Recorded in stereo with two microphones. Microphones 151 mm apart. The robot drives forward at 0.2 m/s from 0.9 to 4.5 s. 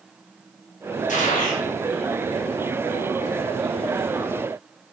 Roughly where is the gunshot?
Left.